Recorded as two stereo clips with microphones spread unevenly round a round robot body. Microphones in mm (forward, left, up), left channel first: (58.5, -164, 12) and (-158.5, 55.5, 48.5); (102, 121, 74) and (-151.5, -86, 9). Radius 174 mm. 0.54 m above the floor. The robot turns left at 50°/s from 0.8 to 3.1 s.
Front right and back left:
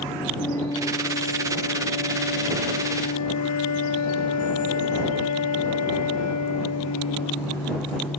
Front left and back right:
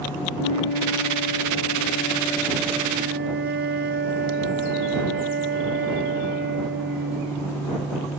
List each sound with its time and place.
0.4 s a flute: 35° left; by 7.7 s 80° right